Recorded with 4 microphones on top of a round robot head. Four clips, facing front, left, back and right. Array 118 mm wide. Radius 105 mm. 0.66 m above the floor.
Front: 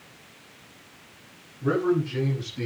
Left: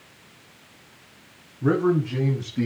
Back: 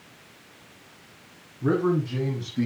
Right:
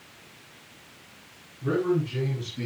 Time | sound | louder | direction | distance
1.6 | a man speaking | left 4 dB, even | 115° left | 6.5 m